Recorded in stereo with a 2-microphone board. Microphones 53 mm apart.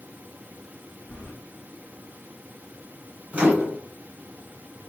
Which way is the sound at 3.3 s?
25° right (ahead or behind).